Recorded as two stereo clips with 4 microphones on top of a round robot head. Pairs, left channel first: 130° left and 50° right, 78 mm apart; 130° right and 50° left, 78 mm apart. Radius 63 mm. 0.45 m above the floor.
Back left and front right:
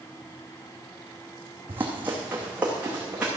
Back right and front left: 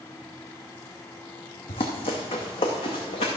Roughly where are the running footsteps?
Behind right.